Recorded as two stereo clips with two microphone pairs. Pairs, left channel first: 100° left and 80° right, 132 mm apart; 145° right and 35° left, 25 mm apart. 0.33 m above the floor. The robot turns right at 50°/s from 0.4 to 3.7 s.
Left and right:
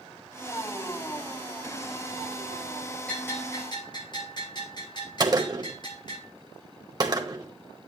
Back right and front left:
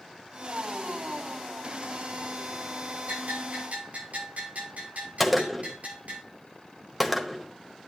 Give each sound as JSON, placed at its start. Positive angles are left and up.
{"t": 3.1, "sound": "a bell", "azimuth_deg": 15, "distance_m": 8.0}
{"t": 5.2, "sound": "a gunshot", "azimuth_deg": -60, "distance_m": 1.3}